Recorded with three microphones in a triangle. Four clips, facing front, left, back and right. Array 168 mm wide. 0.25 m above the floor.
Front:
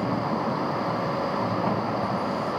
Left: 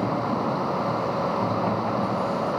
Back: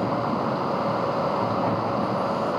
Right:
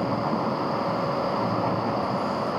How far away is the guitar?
I don't hear a guitar.